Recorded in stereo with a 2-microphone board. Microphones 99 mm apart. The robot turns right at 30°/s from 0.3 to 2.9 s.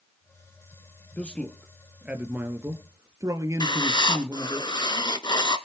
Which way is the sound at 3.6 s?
50° left (ahead or behind).